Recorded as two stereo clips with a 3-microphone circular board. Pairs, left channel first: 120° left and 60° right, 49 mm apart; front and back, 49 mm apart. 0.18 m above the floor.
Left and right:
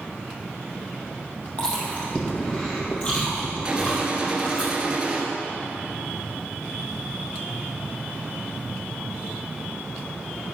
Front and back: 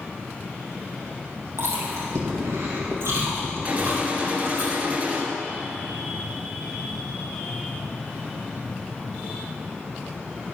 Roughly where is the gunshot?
Behind right.